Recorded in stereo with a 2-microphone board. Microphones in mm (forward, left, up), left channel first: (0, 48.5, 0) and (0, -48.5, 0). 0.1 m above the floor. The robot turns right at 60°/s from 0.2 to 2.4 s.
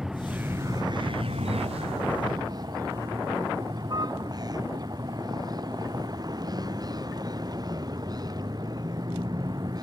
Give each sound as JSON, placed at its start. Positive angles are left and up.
{"t": 0.0, "sound": "a vehicle", "azimuth_deg": -175}